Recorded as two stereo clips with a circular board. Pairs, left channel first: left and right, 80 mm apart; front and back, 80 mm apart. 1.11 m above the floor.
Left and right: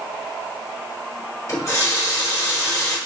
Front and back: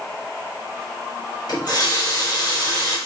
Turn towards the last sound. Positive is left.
turn(degrees=35)